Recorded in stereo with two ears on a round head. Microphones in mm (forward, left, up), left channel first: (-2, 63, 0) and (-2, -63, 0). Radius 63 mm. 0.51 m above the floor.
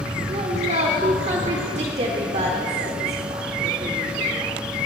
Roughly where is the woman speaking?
Right.